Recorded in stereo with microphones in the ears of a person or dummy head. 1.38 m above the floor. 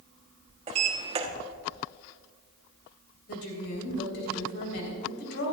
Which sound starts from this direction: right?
A sliding door, at 0.7 s.